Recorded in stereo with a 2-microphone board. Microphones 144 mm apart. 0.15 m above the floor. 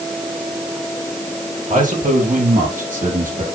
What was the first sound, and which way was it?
A man speaking, 60° right (ahead or behind).